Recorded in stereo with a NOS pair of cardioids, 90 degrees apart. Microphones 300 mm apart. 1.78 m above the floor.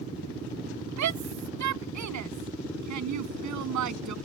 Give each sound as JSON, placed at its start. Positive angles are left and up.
{"t": 1.0, "sound": "a shout", "azimuth_deg": -65}